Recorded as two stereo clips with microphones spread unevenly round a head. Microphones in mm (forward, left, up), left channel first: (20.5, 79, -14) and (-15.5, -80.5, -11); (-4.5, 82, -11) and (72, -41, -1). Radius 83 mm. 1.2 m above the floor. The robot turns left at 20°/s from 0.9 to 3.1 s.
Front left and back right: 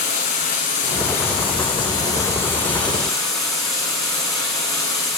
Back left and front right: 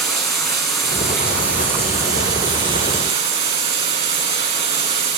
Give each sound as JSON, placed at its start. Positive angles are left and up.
{"t": 0.0, "sound": "running water", "azimuth_deg": 35, "distance_m": 9.0}